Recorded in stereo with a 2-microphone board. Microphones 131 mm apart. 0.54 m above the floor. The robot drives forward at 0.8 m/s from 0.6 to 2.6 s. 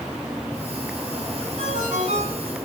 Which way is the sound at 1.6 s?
65° right (ahead or behind).